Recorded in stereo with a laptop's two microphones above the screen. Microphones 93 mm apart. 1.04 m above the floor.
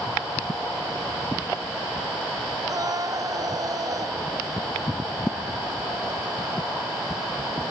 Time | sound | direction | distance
2.7 | a scream | 45° right (ahead or behind) | ?